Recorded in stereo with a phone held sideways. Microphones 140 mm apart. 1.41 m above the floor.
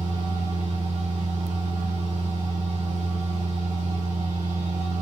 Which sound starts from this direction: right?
A machine running, at 0.0 s.